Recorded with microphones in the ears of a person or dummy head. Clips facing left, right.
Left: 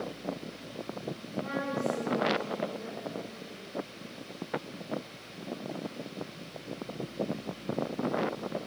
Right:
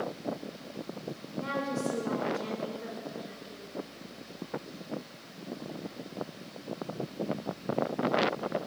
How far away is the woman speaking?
About 5.5 m.